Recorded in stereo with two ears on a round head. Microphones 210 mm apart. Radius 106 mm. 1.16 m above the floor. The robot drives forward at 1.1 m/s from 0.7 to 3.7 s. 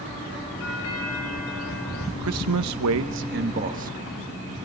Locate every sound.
0.6 s a doorbell: 65° left (ahead or behind), 3.5 m; by 2.1 s 70° left (ahead or behind), 3.5 m
2.2 s a man speaking: 60° right (ahead or behind), 1.0 m; by 4.3 s 35° right (ahead or behind), 1.5 m